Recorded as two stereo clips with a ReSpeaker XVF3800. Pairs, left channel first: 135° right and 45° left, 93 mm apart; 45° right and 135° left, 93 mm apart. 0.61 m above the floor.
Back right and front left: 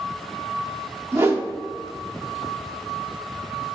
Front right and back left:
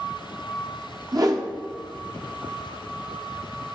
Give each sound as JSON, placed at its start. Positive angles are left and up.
{"t": 1.1, "sound": "a whoosh", "azimuth_deg": 100, "distance_m": 0.7}